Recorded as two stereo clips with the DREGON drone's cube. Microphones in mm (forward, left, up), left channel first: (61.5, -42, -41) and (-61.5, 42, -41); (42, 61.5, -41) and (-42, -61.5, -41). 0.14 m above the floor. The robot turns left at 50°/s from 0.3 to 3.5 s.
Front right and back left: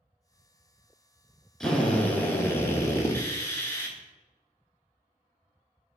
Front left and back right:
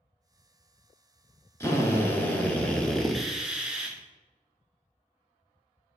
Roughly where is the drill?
Ahead left.